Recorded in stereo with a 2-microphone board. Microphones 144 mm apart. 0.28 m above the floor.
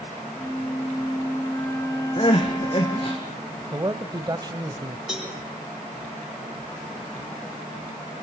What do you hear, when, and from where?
0.4 s a flute: 20° left (ahead or behind), 3.5 m
2.2 s crying: 40° left (ahead or behind), 4 m
3.7 s a man speaking: 30° right (ahead or behind), 1.1 m
5.1 s a cowbell: 5° right (ahead or behind), 6.5 m